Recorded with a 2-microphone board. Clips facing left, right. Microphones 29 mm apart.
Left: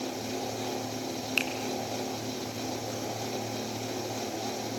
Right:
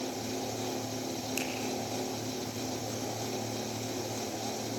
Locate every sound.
1.4 s a finger snap: 50° left (ahead or behind), 2.5 m